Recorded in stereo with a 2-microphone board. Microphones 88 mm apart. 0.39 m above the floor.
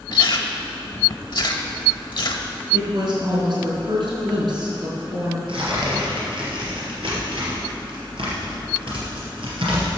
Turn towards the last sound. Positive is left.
turn(degrees=-70)  # may be behind; listen again after turning